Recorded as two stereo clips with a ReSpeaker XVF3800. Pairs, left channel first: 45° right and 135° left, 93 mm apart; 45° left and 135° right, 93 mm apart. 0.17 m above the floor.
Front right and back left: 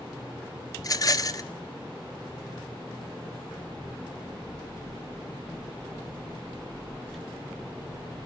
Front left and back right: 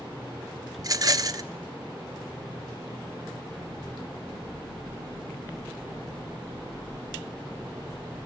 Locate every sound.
0.8 s a rattle: 90° right, 0.9 m